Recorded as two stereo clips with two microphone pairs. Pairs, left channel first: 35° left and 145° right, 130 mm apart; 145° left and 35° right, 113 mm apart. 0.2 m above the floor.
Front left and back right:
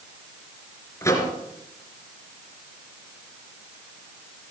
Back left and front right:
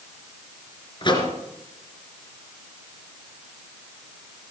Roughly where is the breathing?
No breathing in this recording.